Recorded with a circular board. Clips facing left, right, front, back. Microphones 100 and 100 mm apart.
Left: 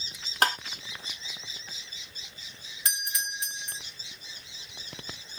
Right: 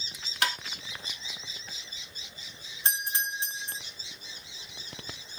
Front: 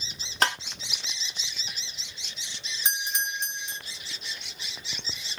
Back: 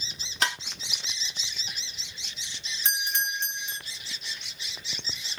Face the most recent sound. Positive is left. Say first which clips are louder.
# right 3 dB, back 1 dB
turn(degrees=-60)